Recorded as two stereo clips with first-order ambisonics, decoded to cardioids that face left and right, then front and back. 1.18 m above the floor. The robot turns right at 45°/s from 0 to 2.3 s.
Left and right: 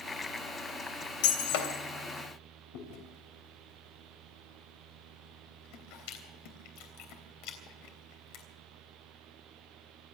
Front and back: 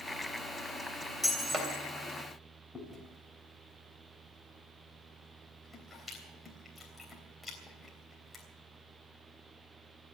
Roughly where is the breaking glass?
Left.